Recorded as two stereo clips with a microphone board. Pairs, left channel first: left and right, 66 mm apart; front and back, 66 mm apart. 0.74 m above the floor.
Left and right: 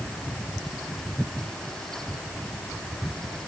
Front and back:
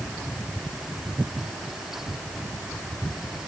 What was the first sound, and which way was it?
Only background noise.